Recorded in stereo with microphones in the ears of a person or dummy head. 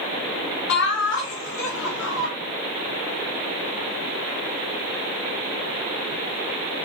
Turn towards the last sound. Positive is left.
turn(degrees=85)